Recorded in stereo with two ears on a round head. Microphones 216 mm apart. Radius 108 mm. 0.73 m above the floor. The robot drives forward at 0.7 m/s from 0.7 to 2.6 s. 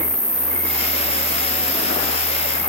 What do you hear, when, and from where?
0.0 s an insect: 40° right (ahead or behind), 4.5 m; by 2.7 s 30° right (ahead or behind), 5.5 m